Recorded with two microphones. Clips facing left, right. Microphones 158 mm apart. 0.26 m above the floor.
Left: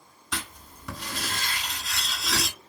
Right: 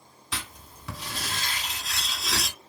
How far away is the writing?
About 1.1 m.